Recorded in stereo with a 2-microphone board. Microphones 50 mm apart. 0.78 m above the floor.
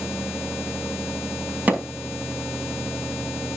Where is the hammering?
40° right (ahead or behind), 5 m.